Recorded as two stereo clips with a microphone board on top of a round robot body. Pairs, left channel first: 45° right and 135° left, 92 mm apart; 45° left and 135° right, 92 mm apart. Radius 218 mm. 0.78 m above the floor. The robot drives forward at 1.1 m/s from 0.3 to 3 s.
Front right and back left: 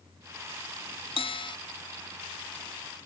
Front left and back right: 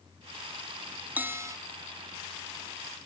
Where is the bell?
65° right; by 1.6 s 80° right.